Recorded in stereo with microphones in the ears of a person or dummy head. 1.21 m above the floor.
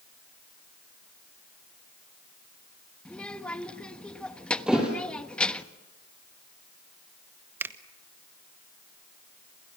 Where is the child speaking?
5° left (ahead or behind), 1.3 m.